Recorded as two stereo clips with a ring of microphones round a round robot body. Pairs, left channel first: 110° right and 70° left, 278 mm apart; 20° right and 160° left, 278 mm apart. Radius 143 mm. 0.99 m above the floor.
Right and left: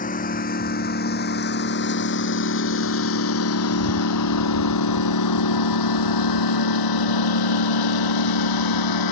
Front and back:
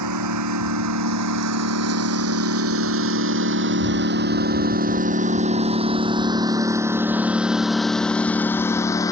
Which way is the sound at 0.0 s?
175° right.